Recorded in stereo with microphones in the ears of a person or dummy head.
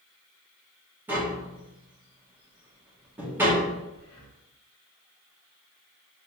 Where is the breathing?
20° left (ahead or behind), 1.5 m.